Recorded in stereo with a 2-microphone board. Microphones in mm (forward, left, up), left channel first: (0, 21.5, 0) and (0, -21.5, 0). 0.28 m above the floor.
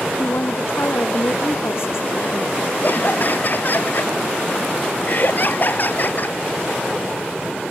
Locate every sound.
0.2 s a woman speaking: 65° left (ahead or behind)
2.8 s laughter: 45° left (ahead or behind)